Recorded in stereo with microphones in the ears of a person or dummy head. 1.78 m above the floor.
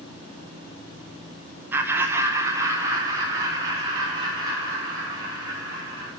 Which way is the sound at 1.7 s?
15° right (ahead or behind).